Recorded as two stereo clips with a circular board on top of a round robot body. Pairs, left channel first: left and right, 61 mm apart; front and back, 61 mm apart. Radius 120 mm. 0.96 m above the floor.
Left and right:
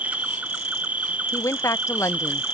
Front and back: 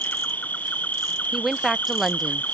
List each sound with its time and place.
0.0 s an insect: 40° right
1.3 s a woman speaking: 90° left